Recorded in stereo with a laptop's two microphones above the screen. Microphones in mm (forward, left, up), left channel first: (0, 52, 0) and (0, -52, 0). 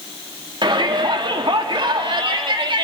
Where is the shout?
50° right (ahead or behind), 1.8 m.